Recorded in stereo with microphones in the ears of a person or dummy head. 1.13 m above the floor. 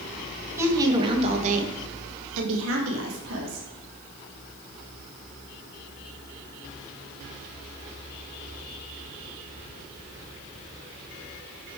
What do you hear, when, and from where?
0.6 s a woman speaking: 15° right (ahead or behind), 1.4 m; by 3.6 s 75° right (ahead or behind), 1.8 m